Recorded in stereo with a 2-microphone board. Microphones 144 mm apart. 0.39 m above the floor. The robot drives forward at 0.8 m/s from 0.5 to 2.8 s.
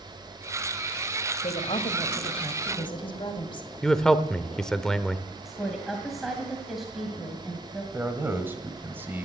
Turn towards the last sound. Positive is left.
turn(degrees=-15)  # may be behind; listen again after turning